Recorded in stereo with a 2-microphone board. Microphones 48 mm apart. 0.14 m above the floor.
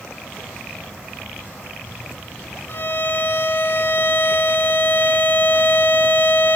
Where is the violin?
45° left (ahead or behind), 1.0 m.